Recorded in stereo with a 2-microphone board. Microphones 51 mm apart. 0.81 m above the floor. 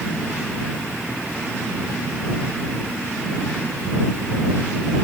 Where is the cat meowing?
I don't hear a cat meowing.